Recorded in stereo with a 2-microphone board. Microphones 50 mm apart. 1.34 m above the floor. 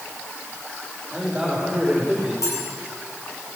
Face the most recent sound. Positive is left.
turn(degrees=85)